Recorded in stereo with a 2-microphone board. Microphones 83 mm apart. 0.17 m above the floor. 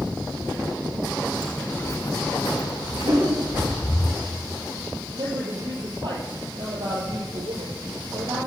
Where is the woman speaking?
60° right (ahead or behind), 5.5 m.